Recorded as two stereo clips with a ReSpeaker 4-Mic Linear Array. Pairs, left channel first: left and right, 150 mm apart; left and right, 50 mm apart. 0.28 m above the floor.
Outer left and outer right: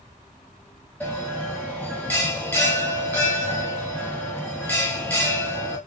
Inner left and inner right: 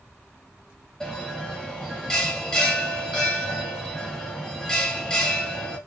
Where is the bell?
10° left (ahead or behind), 1.0 m.